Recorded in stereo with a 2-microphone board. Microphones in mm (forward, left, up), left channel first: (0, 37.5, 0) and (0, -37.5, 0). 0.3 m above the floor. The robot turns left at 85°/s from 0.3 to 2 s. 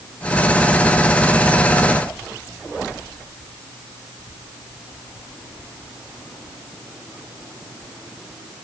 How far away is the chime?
No chime in this recording.